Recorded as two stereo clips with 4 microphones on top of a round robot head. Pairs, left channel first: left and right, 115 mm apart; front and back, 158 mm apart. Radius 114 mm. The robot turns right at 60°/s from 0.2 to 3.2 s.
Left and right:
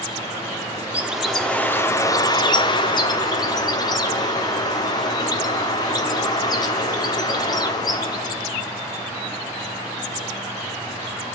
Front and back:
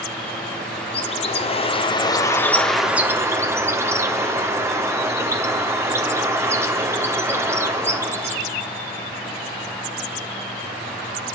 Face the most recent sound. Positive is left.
turn(degrees=115)